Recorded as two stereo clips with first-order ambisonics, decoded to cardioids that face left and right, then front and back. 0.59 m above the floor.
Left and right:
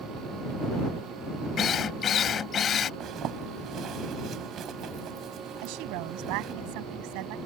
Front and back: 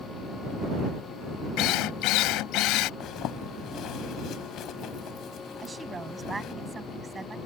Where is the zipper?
40° right.